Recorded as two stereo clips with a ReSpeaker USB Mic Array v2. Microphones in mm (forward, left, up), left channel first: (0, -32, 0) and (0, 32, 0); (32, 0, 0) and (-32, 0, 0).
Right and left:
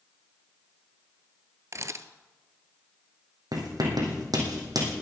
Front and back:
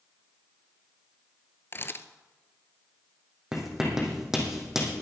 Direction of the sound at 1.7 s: 50° left.